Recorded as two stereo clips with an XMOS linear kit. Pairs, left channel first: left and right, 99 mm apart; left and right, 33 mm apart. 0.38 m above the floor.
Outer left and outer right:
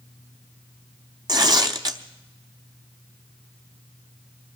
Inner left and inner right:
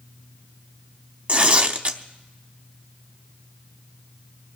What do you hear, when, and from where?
1.3 s tearing paper: 45° right (ahead or behind), 0.9 m